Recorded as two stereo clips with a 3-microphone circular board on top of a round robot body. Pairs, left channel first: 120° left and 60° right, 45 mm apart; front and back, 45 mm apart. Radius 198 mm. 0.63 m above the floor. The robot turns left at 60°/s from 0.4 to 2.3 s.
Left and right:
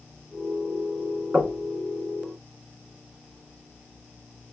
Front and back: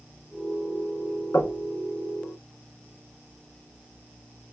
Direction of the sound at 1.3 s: 5° left.